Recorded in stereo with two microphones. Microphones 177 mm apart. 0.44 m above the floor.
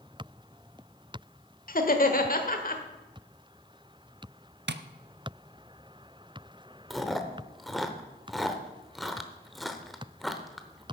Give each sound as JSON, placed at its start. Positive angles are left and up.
{"t": 1.7, "sound": "laughter", "side_deg": 55, "distance_m": 1.2}
{"t": 4.7, "sound": "tapping", "side_deg": -85, "distance_m": 0.6}
{"t": 6.9, "sound": "chewing", "side_deg": 0, "distance_m": 0.9}